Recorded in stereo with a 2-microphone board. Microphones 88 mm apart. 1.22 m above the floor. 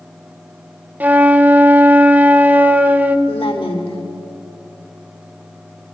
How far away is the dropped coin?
No dropped coin in this recording.